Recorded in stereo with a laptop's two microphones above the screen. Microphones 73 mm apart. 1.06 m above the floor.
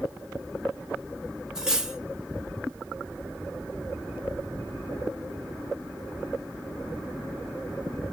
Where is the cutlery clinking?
5° right (ahead or behind), 0.7 m.